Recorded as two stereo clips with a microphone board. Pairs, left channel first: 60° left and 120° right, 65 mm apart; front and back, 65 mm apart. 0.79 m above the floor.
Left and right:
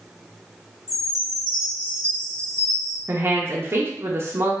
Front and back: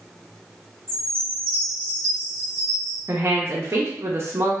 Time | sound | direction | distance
0.9 | a chime | 80° left | 1.6 m
3.1 | a woman speaking | 150° right | 0.6 m